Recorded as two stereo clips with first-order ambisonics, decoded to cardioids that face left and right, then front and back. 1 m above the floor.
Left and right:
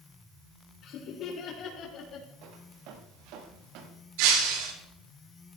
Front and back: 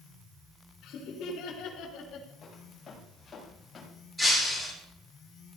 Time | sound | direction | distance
0.8 | laughter | 45° left | 4 m
2.4 | footsteps | 70° right | 6.5 m
4.2 | breaking glass | 90° right | 9 m